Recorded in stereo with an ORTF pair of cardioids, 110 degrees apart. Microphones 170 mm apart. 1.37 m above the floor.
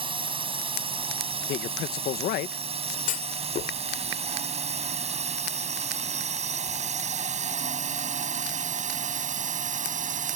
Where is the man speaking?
70° left.